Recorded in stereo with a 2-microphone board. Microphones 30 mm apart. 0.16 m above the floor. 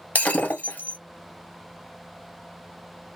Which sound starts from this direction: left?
Breaking glass, at 0.1 s.